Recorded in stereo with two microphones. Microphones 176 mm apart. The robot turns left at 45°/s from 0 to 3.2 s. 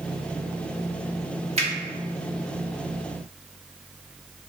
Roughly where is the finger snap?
Right.